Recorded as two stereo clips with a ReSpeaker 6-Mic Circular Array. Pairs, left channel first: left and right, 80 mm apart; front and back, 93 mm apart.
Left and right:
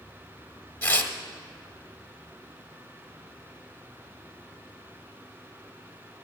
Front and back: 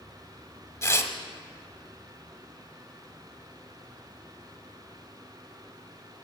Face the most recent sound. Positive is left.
turn(degrees=30)